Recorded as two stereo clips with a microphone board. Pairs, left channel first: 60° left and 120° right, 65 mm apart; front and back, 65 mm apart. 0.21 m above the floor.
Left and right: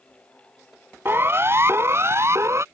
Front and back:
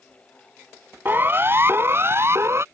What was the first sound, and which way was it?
A siren, 145° right.